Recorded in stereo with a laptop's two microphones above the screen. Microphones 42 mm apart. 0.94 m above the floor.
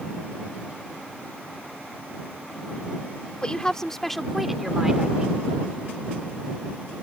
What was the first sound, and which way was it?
A woman speaking, 20° left (ahead or behind).